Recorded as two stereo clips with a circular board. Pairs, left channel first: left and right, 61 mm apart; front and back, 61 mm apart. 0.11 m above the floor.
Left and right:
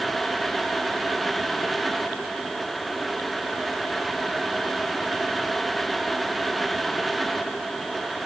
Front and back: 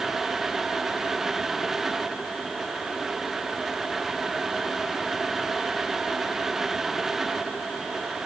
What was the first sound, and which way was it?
Only background noise.